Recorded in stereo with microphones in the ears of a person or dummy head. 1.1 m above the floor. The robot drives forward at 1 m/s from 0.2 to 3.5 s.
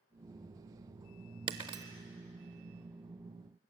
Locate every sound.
1.5 s breaking glass: 25° right (ahead or behind), 0.8 m